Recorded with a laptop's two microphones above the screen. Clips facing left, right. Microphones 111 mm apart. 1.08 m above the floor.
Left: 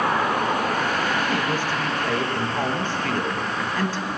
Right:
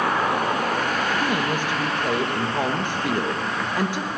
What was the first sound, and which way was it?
A woman speaking, 15° right (ahead or behind).